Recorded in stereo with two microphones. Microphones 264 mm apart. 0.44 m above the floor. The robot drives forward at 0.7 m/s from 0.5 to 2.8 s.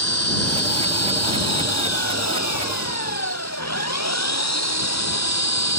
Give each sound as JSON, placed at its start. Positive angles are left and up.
{"t": 0.0, "sound": "an engine running", "side_deg": 65}